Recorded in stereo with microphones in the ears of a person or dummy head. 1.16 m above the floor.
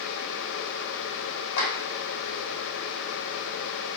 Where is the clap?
85° left, 3.5 m.